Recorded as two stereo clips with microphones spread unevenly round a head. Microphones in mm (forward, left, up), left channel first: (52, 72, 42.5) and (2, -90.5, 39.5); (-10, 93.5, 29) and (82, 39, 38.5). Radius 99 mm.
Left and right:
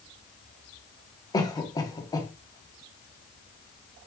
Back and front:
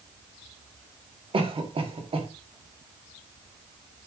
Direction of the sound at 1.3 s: 5° left.